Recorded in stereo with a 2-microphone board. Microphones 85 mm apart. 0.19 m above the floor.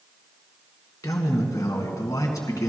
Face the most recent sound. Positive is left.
turn(degrees=45)  # may be behind; listen again after turning